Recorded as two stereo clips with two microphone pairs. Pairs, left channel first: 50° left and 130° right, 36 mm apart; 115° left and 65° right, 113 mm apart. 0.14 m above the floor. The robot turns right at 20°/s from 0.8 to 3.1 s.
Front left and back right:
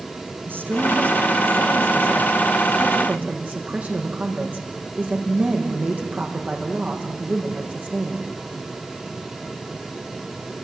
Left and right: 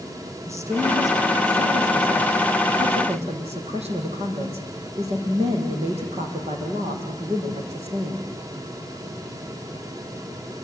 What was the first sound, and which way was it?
A woman speaking, 130° right.